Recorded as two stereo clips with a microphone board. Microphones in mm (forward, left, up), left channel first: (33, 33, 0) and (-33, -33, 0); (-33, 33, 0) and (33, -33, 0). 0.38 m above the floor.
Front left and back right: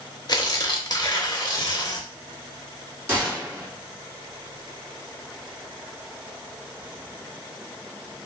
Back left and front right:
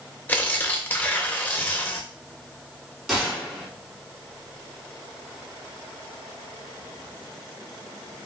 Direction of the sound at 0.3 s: 70° left.